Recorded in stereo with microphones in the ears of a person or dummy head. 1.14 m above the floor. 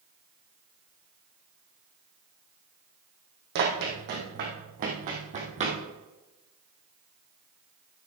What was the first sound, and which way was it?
Running footsteps, 55° right (ahead or behind).